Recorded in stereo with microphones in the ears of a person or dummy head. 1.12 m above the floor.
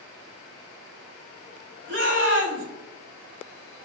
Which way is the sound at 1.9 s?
55° right (ahead or behind).